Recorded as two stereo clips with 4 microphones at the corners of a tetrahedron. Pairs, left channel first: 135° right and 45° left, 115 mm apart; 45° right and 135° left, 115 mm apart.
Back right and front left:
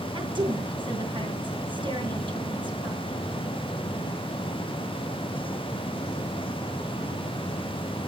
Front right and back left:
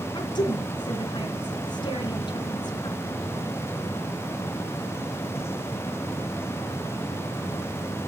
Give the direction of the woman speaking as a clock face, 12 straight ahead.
12 o'clock.